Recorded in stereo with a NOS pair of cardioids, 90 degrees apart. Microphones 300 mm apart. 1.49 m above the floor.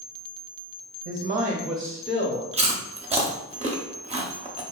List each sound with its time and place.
1.1 s a woman speaking: 50° right, 0.5 m; by 2.4 s 25° left, 0.8 m
2.5 s chewing: 20° right, 0.6 m